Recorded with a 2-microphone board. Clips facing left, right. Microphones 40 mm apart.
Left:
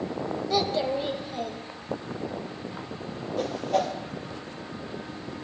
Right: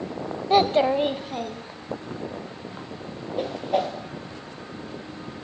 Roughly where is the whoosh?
Centre.